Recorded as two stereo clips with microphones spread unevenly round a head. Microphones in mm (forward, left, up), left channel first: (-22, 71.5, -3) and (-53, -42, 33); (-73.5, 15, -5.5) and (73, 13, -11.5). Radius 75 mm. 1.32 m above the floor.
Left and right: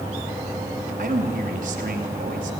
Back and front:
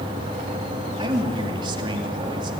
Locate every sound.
1.0 s a man speaking: 65° right, 2.5 m